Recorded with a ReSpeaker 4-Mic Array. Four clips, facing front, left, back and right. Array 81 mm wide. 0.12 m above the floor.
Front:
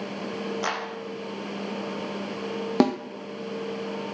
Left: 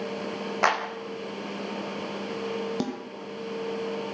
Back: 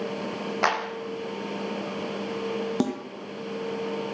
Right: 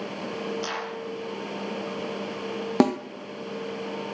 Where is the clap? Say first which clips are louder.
Left 8 dB, back 8 dB; 125° left, 5.5 m.